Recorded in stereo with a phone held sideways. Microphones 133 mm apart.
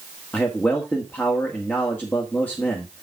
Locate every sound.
0.3 s a man speaking: 10° left (ahead or behind), 1.5 m